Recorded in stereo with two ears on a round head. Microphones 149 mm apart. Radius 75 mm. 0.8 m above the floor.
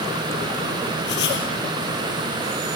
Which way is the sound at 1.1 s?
70° left (ahead or behind).